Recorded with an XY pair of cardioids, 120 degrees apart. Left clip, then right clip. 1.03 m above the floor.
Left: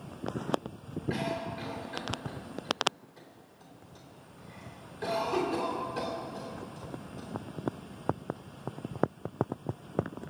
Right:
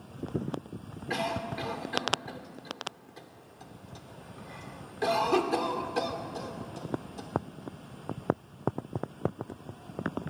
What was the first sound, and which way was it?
A cough, 60° right.